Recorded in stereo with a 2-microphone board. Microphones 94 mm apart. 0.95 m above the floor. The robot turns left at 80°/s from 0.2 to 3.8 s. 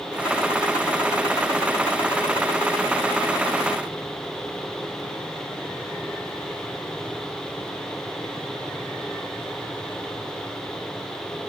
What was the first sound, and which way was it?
Only background noise.